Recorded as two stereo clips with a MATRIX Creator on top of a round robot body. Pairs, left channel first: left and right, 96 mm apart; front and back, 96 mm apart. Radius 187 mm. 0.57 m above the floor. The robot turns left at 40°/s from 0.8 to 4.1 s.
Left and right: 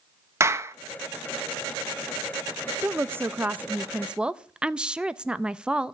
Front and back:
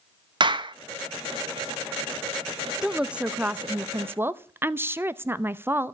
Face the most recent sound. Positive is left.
turn(degrees=-155)